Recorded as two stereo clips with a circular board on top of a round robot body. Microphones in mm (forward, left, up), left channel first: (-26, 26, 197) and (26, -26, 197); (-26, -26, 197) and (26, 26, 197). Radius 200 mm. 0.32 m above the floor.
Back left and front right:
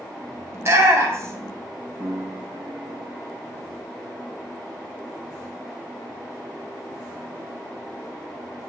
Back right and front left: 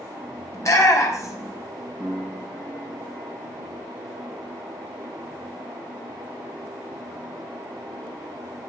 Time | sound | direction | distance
0.5 | a shout | 95° right | 2.0 m
2.0 | a piano | 40° right | 4.5 m